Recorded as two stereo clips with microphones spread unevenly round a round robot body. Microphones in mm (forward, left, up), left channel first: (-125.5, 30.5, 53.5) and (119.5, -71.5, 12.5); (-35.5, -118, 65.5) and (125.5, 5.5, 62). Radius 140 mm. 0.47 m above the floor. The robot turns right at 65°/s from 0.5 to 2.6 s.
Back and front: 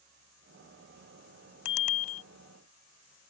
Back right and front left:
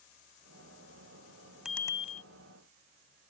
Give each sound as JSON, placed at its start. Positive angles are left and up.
{"t": 1.6, "sound": "a bicycle bell", "azimuth_deg": 125}